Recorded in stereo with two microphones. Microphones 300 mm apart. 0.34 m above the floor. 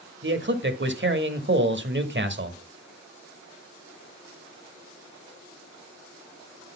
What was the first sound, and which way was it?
A man speaking, 40° right (ahead or behind).